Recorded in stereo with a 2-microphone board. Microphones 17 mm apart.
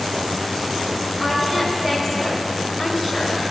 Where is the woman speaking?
15° right (ahead or behind), 5.5 m.